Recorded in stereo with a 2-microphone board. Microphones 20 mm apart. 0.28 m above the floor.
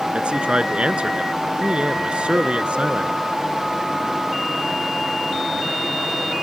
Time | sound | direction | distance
0.1 | a man speaking | 55° right (ahead or behind) | ?